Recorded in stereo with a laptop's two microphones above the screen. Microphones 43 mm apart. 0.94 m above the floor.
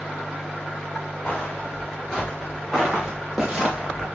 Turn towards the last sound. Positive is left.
turn(degrees=-15)  # may be behind; listen again after turning